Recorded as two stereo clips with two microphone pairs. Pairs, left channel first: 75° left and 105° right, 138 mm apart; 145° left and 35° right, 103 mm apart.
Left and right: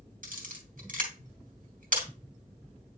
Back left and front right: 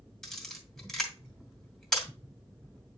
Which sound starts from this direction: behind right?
A camera shutter, at 0.2 s.